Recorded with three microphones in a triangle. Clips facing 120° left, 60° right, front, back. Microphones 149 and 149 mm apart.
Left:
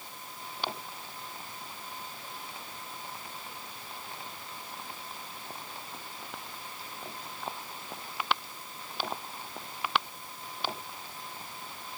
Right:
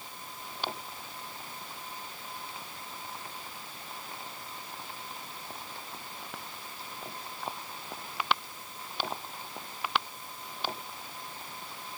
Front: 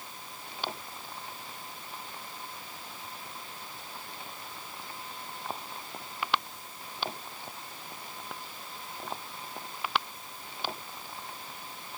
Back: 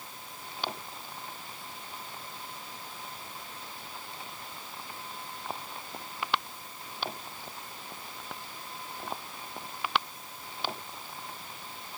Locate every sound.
Only background noise.